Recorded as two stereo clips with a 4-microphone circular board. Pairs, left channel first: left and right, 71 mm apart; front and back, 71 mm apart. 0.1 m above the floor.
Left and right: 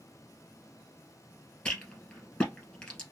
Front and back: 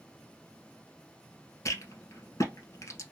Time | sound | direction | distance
1.6 | a rattle | 20° left | 2 m